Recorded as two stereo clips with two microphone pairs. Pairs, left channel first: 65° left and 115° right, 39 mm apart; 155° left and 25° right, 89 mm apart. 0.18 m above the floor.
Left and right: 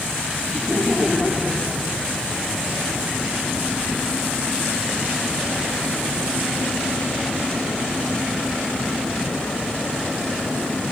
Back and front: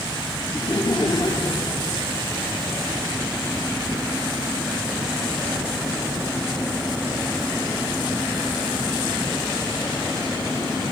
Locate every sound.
0.5 s laughter: 175° left, 3.5 m